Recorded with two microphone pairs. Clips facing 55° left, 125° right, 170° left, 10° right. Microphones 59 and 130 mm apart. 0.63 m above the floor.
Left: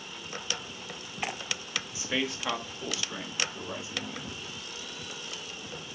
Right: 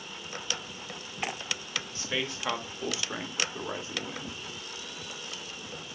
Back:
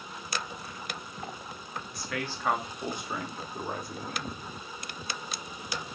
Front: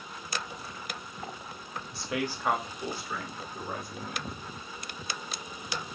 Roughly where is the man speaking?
Ahead.